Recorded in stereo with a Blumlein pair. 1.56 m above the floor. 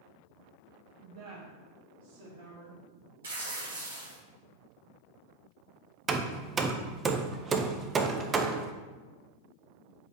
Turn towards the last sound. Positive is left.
turn(degrees=-20)